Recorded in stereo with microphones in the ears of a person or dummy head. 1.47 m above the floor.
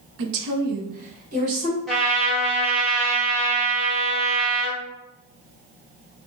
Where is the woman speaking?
70° right (ahead or behind), 0.6 m; by 1.8 s 40° right (ahead or behind), 1.7 m.